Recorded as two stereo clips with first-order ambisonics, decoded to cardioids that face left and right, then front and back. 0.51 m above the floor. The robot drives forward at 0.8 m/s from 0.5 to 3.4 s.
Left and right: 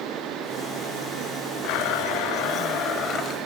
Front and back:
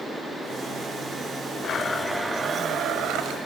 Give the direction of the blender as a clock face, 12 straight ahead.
10 o'clock.